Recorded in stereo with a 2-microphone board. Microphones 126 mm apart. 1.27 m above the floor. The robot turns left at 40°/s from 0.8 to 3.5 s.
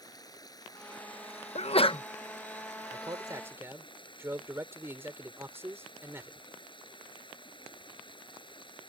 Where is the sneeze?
60° left (ahead or behind); by 2.0 s 40° left (ahead or behind).